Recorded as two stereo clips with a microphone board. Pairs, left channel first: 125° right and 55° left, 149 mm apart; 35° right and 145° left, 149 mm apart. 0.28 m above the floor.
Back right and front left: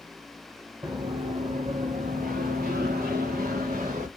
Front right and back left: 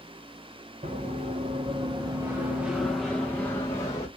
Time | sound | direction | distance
0.8 | running footsteps | 115° left | 1.1 m